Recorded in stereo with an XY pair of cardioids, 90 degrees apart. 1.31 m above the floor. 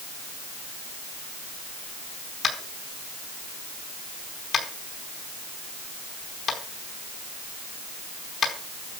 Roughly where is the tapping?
Ahead left.